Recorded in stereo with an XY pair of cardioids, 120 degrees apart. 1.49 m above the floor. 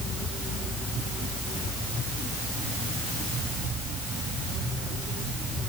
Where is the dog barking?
No dog barking in this recording.